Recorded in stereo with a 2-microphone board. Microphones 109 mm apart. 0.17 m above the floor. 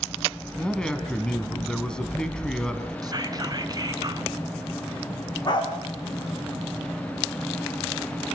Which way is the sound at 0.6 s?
10° left (ahead or behind).